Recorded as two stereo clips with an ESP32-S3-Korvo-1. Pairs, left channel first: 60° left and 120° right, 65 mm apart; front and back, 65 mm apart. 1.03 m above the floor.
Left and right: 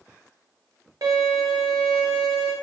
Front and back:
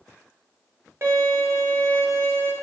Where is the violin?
135° right, 0.5 m.